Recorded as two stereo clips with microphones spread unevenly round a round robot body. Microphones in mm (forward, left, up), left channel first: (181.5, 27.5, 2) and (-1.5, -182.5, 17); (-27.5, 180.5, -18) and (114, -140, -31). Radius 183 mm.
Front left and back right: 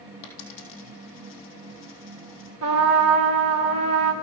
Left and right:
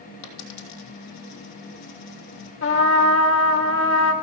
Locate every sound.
0.2 s a dropped coin: 75° left, 3.5 m
2.6 s a trumpet: 175° left, 1.4 m